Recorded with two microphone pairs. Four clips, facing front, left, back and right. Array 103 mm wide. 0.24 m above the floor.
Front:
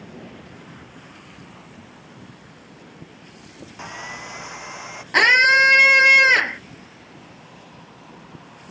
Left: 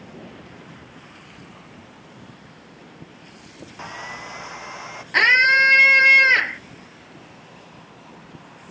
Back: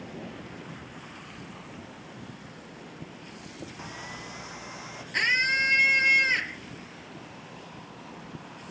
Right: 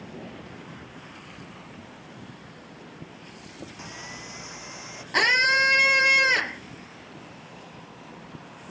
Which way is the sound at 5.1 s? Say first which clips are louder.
Left 5 dB, front 12 dB; 10° left.